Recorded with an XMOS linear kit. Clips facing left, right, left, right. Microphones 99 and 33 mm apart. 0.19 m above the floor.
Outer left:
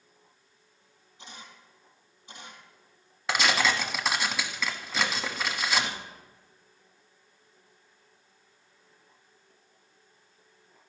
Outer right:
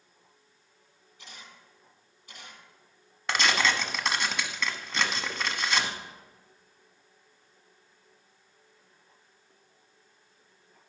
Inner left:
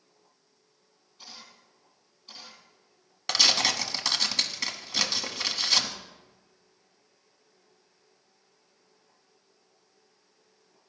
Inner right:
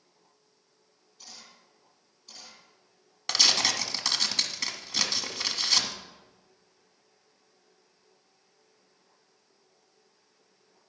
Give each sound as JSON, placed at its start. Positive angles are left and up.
{"t": 1.2, "sound": "a camera shutter", "side_deg": 25, "distance_m": 3.0}
{"t": 3.3, "sound": "tearing paper", "side_deg": 5, "distance_m": 1.0}